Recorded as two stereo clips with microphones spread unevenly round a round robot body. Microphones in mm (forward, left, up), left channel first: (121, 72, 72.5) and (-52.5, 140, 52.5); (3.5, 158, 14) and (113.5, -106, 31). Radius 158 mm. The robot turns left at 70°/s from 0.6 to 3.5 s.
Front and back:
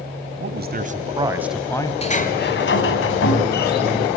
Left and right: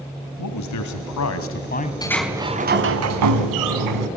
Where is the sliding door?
40° left, 3 m; by 4.1 s 65° right, 3 m.